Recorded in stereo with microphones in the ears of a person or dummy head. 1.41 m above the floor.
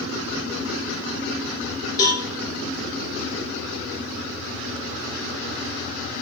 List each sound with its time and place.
2.0 s a cowbell: 20° left (ahead or behind), 1.2 m